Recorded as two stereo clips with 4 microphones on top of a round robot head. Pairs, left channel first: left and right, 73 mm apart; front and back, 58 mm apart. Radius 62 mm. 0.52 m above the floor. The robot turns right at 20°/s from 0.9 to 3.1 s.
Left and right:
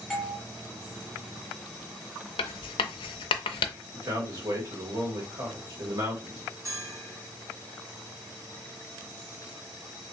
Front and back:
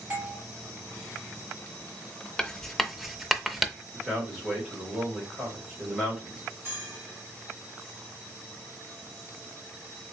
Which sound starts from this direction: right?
A man speaking, at 3.9 s.